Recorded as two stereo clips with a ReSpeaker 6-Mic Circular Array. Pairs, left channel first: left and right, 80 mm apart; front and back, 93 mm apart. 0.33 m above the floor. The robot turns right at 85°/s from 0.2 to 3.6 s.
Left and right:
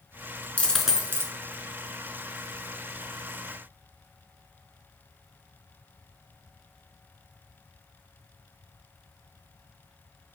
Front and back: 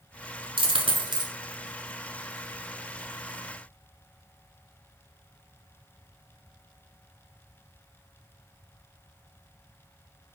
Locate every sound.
0.6 s a dropped coin: 160° left, 0.7 m; by 1.3 s 135° right, 0.7 m